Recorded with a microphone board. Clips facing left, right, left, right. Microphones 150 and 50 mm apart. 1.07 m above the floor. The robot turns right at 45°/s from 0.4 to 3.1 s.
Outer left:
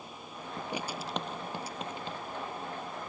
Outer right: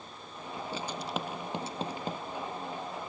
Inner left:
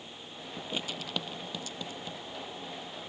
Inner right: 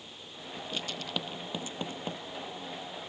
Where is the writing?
25° left (ahead or behind); by 2.2 s 50° right (ahead or behind).